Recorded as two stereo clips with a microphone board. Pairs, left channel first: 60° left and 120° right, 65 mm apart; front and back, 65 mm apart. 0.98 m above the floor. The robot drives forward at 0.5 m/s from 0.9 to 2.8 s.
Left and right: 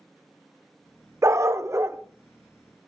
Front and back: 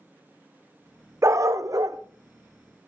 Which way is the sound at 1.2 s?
150° right.